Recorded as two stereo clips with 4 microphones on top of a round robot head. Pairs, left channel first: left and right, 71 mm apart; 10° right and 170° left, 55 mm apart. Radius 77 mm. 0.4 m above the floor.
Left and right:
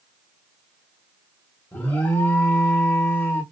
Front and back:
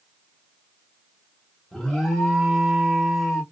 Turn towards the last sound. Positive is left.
turn(degrees=65)